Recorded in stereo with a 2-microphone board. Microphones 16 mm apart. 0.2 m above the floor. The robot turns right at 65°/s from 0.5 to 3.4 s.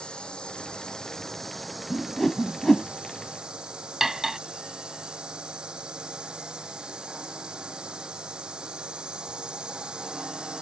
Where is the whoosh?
35° left (ahead or behind); by 2.9 s 25° left (ahead or behind).